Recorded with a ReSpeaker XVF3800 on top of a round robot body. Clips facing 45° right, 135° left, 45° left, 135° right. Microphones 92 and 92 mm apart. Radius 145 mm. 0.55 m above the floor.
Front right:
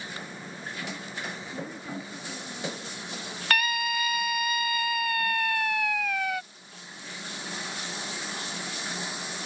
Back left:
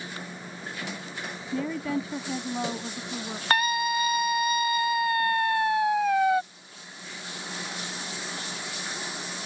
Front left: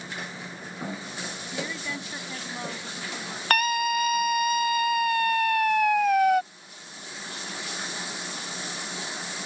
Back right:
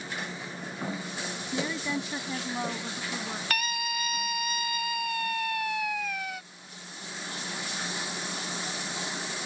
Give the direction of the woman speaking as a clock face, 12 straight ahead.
7 o'clock.